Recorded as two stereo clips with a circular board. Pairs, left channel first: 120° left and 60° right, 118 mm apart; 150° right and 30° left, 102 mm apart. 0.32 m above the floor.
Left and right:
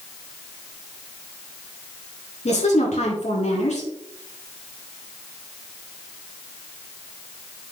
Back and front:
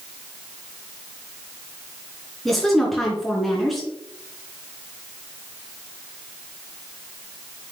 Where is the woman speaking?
120° left, 3.5 m.